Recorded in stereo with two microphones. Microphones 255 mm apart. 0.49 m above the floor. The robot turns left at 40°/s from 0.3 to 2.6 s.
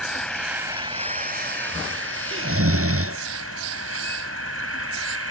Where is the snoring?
50° right (ahead or behind); by 3.2 s 65° right (ahead or behind).